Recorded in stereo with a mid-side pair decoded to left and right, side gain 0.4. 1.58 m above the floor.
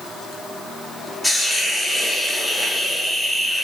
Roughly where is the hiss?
Ahead.